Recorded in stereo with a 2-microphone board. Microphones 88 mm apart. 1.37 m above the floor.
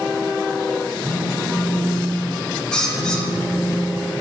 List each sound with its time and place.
1.0 s a phone buzzing: 65° right (ahead or behind), 5 m
2.7 s a bird: 10° left (ahead or behind), 2 m